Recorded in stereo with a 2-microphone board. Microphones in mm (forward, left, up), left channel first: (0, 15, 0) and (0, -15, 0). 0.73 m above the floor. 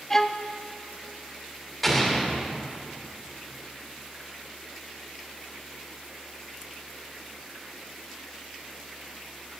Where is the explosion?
5° left (ahead or behind), 2.5 m.